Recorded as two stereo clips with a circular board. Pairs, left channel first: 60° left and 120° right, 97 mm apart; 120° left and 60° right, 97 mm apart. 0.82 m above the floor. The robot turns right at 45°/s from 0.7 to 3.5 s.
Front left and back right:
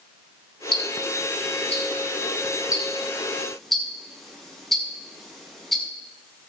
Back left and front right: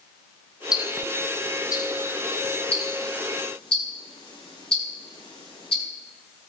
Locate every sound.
0.7 s ticking: 25° left, 6 m; by 5.8 s 150° left, 6 m